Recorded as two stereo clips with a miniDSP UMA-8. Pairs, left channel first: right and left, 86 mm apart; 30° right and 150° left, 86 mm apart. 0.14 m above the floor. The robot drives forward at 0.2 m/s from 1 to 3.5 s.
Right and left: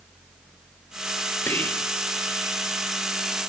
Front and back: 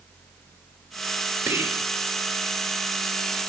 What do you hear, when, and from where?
1.5 s whispering: 150° right, 3 m